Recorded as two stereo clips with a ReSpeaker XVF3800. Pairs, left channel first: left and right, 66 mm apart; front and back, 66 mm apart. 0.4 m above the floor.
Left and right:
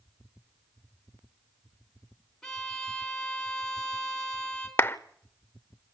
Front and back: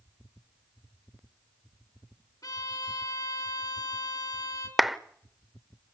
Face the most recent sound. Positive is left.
turn(degrees=95)